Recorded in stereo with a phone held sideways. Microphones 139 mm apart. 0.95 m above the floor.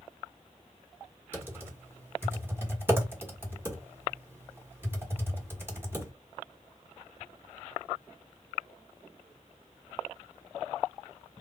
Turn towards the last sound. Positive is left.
turn(degrees=-15)  # may be behind; listen again after turning